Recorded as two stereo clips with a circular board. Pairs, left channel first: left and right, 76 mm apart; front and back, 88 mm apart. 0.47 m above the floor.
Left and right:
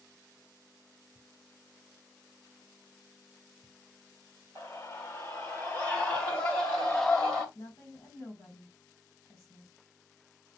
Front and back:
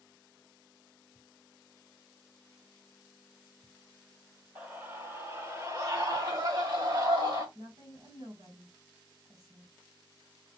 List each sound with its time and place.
4.5 s a scream: 125° left, 1.6 m; by 7.5 s 170° left, 2.5 m
7.5 s a woman speaking: 150° left, 2.5 m